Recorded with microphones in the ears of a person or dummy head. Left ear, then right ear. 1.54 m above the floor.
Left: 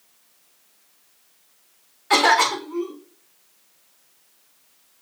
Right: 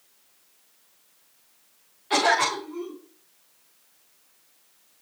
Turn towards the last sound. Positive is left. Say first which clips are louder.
# left 5 dB
turn(degrees=55)  # may be behind; listen again after turning